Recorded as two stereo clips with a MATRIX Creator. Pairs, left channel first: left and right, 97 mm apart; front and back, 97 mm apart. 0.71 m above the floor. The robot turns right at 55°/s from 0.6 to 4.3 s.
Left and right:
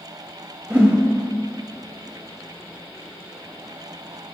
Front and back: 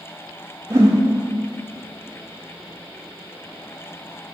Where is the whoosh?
150° right, 0.9 m; by 1.0 s 135° right, 0.9 m.